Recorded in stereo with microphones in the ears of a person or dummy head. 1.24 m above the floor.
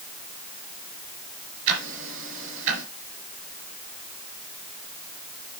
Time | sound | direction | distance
1.7 | ticking | 75° right (ahead or behind) | 4 m